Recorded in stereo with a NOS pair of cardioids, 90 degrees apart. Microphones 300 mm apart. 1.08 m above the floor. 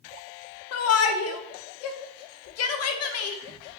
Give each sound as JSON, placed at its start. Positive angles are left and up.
{"t": 0.7, "sound": "a shout", "azimuth_deg": 55, "distance_m": 0.5}